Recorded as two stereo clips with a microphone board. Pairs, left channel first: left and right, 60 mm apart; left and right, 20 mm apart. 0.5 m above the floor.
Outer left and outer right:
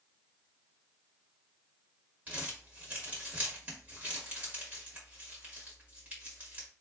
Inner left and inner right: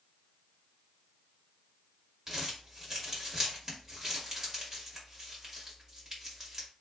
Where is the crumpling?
30° right (ahead or behind), 1.8 m.